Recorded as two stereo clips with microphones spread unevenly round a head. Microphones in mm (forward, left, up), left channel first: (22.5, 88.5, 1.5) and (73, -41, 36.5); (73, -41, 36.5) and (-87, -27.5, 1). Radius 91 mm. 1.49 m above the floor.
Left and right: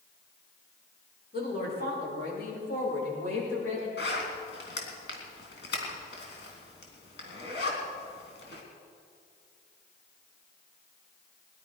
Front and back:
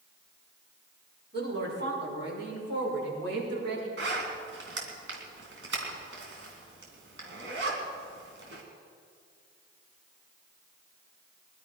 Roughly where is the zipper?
Behind left.